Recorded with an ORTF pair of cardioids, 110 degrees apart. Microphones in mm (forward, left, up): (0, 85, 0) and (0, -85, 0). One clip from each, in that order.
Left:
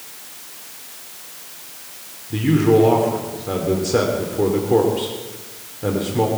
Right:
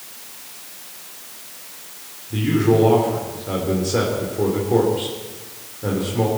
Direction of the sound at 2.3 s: 15° left.